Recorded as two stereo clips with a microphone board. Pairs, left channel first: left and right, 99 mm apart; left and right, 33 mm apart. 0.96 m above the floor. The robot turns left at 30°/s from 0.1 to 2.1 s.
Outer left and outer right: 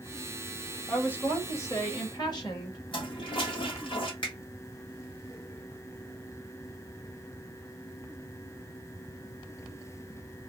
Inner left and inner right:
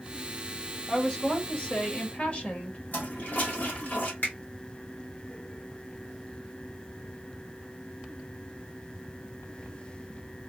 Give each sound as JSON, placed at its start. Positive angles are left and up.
{"t": 0.9, "sound": "a woman speaking", "azimuth_deg": 170, "distance_m": 1.8}
{"t": 2.9, "sound": "a toilet flushing", "side_deg": 60, "distance_m": 1.5}
{"t": 4.2, "sound": "a finger snap", "side_deg": 55, "distance_m": 2.0}